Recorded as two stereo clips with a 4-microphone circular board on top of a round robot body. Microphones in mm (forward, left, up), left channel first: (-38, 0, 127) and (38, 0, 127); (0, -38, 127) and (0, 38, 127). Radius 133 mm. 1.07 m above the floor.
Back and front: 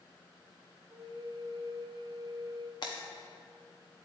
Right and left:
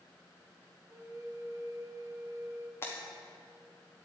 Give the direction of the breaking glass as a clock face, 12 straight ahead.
5 o'clock.